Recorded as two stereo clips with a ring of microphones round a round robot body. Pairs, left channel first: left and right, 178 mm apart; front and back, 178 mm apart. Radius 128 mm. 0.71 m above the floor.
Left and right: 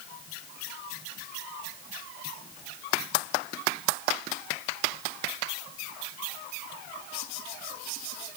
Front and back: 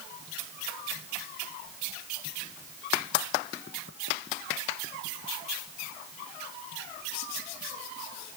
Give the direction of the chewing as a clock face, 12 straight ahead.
I don't hear chewing.